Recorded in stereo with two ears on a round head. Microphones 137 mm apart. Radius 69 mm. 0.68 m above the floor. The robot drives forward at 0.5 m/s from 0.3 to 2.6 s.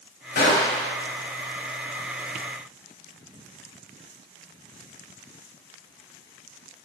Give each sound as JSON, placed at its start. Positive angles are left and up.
{"t": 0.3, "sound": "a gunshot", "side_deg": 60, "distance_m": 0.9}